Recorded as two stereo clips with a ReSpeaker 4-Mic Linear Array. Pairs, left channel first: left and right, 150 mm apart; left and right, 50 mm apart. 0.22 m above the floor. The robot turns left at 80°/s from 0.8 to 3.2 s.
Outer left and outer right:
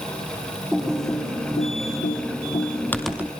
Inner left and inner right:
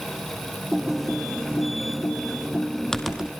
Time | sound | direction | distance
0.7 | typing on a keyboard | centre (ahead or behind) | 2.5 m